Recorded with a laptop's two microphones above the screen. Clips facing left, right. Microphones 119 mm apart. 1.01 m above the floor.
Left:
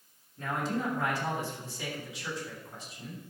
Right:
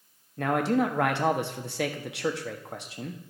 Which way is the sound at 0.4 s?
75° right (ahead or behind).